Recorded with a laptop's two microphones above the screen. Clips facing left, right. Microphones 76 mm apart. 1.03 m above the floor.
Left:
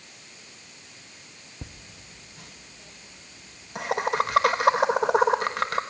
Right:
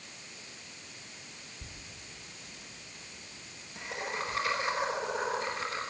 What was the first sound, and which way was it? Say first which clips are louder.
Laughter: left 4 dB; 70° left (ahead or behind).